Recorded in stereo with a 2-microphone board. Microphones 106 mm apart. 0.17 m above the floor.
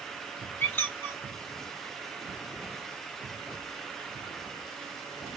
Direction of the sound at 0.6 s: 15° left (ahead or behind).